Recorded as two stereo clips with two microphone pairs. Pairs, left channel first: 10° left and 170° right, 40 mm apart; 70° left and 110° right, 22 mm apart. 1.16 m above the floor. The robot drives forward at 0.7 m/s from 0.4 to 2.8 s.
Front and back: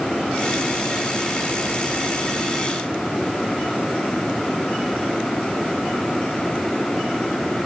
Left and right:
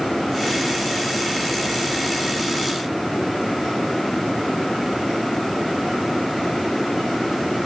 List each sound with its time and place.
Only background noise.